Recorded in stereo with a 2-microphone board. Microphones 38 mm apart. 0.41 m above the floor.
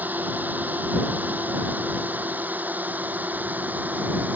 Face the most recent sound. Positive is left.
turn(degrees=-50)  # may be behind; listen again after turning